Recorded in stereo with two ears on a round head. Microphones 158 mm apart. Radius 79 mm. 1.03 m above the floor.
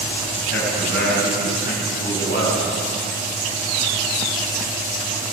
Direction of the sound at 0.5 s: 55° left (ahead or behind).